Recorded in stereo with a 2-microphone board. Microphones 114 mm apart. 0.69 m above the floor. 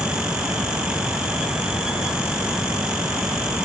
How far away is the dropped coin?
I don't hear a dropped coin.